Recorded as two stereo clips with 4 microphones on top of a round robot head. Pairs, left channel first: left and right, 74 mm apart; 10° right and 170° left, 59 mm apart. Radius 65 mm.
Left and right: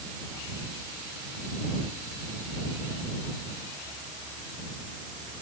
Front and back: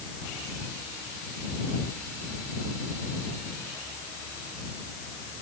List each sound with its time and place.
Only background noise.